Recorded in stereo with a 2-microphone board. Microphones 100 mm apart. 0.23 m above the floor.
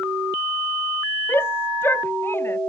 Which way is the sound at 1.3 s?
20° left (ahead or behind).